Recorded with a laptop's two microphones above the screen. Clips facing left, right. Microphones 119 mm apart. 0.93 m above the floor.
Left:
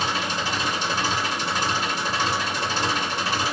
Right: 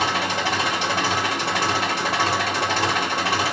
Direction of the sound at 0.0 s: 60° right (ahead or behind).